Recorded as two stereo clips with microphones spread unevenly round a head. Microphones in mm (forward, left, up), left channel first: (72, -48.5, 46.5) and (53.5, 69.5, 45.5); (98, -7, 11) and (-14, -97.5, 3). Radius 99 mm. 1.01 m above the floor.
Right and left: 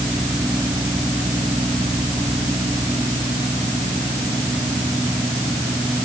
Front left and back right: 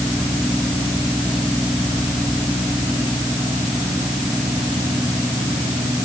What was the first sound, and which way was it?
Only background noise.